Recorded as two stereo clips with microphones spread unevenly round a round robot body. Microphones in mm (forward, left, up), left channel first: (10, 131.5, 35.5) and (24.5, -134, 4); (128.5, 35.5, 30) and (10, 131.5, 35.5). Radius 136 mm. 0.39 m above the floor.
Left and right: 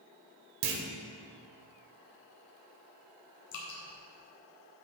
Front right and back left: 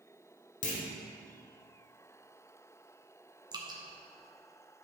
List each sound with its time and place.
0.6 s a clunk: 65° right, 0.9 m
3.5 s dripping: 80° left, 1.8 m